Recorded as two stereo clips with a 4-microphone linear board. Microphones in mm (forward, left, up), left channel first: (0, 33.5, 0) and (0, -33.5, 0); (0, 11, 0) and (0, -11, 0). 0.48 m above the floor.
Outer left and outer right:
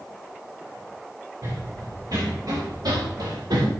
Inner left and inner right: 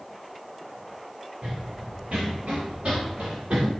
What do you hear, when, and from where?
1.4 s running footsteps: 55° right (ahead or behind), 4 m; by 3.7 s 80° right, 3.5 m